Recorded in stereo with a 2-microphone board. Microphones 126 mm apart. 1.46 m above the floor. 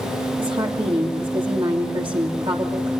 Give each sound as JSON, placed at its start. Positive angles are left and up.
{"t": 0.4, "sound": "a woman speaking", "side_deg": -45, "distance_m": 3.0}